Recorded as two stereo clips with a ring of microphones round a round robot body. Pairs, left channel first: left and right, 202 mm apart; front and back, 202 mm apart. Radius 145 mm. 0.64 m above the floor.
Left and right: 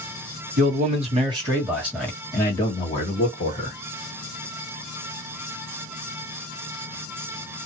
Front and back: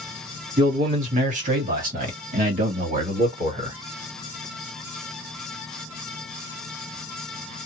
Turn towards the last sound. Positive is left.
turn(degrees=130)